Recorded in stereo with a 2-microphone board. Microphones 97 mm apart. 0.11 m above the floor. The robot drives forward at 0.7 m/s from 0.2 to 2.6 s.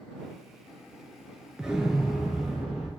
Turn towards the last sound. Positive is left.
turn(degrees=-5)  # may be behind; listen again after turning